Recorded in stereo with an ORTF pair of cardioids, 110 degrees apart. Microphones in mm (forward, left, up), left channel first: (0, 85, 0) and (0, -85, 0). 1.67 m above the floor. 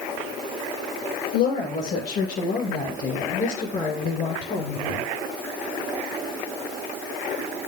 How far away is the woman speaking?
About 7 m.